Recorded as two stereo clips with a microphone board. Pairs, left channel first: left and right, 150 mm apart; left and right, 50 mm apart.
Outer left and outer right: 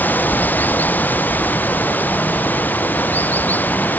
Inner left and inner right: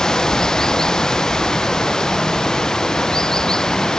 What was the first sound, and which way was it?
Running water, 10° left (ahead or behind).